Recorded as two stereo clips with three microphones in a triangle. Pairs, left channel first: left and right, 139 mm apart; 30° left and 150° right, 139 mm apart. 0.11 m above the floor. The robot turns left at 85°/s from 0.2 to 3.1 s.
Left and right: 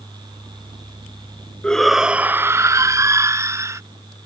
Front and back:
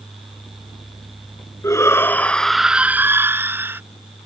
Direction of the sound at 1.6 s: 20° left.